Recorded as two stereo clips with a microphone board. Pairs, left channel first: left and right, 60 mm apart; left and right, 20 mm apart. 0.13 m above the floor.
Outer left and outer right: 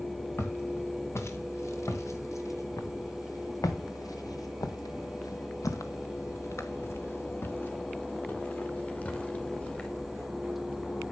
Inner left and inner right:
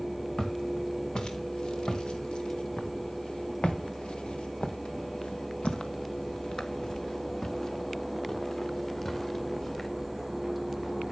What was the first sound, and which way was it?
Footsteps, 40° left (ahead or behind).